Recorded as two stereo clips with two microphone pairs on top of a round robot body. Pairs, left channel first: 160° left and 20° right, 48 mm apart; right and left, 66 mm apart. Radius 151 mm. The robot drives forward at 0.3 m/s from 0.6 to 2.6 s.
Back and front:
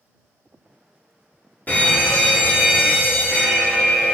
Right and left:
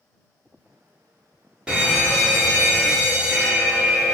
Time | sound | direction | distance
1.7 | a fire alarm | 155° left | 2 m